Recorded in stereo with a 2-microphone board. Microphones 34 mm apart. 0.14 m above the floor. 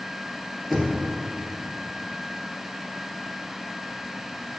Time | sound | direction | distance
0.7 | knocking | centre (ahead or behind) | 2.5 m